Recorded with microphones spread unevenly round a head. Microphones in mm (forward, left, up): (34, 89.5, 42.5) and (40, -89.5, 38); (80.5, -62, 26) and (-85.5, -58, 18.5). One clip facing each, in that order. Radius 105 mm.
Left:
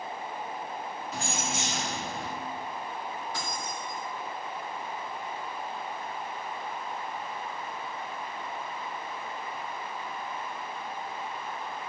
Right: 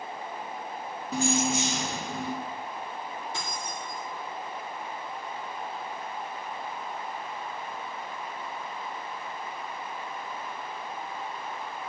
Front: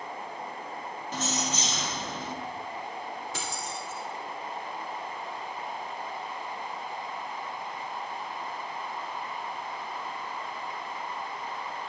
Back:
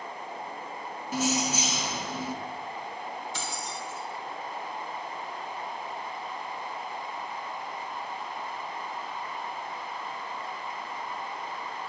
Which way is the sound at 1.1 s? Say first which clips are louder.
Right 10 dB, back 5 dB; 100° right.